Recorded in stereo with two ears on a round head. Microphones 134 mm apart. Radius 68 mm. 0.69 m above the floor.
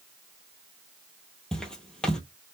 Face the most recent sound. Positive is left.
turn(degrees=5)  # may be behind; listen again after turning